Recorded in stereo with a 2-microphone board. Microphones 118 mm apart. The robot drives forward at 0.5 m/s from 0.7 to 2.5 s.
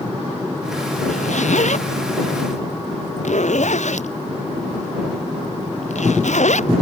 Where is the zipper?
80° left.